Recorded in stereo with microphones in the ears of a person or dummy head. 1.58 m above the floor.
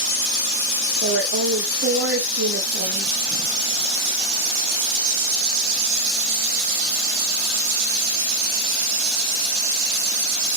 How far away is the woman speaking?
About 1.5 m.